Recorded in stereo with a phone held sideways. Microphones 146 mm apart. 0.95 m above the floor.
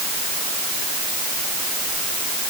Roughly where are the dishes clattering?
No dishes clattering in this recording.